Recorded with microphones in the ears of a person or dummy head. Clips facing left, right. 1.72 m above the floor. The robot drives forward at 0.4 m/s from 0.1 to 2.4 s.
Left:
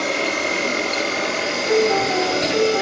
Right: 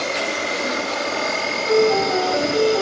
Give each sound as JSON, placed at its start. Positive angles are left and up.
{"t": 0.0, "sound": "an insect", "side_deg": 45, "distance_m": 1.4}
{"t": 1.7, "sound": "a piano", "side_deg": -5, "distance_m": 6.5}